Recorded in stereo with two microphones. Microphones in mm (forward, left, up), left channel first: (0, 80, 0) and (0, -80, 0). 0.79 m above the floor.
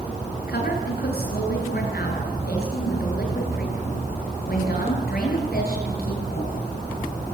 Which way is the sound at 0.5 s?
75° left (ahead or behind).